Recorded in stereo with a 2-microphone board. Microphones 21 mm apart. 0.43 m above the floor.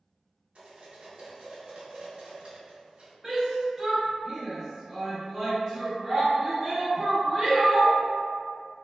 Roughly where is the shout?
Centre.